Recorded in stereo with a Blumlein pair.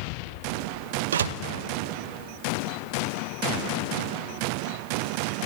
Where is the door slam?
65° right, 1.2 m.